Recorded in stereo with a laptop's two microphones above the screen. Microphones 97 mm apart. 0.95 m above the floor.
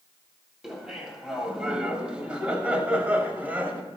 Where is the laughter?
5° right (ahead or behind), 7 m; by 3.8 s 15° right (ahead or behind), 6 m.